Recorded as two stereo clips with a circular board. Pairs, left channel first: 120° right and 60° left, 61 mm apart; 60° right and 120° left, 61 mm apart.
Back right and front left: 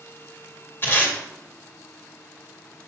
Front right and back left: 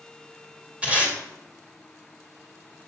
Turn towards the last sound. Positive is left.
turn(degrees=-170)